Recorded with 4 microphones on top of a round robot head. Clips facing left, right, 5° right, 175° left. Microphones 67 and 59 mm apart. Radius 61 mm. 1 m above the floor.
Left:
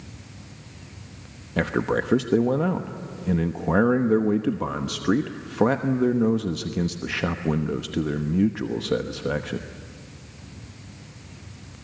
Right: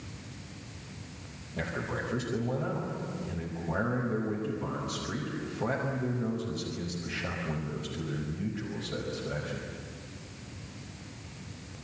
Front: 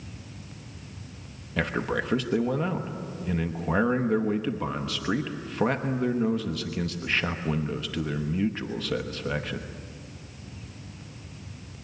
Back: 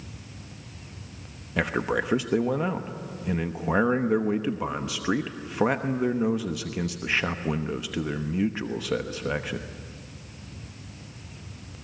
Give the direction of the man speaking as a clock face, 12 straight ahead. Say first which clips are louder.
Left 11 dB, back 2 dB; 9 o'clock.